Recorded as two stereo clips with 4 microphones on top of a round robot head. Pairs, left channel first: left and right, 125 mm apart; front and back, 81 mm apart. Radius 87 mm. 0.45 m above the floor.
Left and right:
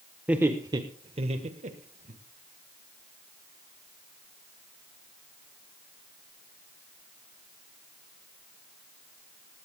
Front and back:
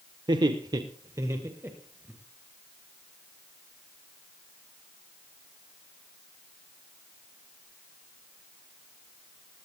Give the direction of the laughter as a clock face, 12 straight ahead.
6 o'clock.